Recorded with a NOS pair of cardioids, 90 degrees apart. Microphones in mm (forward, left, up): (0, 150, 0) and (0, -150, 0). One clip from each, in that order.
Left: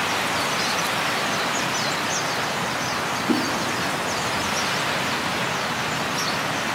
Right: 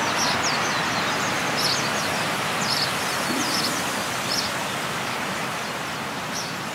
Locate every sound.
3.3 s a whoosh: 55° left, 1.4 m